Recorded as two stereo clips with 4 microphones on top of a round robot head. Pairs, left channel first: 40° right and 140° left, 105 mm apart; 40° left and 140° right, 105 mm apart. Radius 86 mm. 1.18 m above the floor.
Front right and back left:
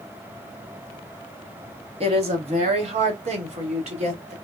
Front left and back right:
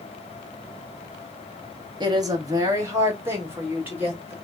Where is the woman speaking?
170° left, 1.1 m; by 4.3 s 145° left, 2 m.